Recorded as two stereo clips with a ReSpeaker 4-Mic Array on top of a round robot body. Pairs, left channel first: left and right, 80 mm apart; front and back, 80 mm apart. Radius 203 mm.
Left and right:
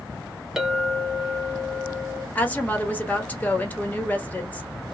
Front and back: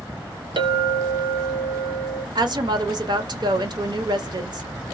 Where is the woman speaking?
160° left, 1.2 m.